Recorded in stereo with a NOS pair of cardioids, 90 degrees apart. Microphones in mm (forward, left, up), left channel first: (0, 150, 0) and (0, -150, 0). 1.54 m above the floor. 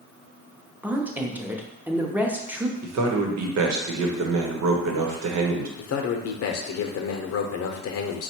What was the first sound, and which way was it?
A woman speaking, 5° right.